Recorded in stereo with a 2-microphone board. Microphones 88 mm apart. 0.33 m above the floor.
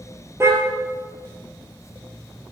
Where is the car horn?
30° right (ahead or behind), 3 m.